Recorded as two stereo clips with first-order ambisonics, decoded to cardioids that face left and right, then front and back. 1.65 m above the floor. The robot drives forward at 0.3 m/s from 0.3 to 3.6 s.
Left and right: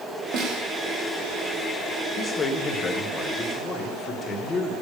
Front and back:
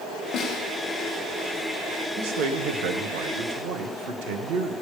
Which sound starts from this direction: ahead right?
A snare drum, at 0.3 s.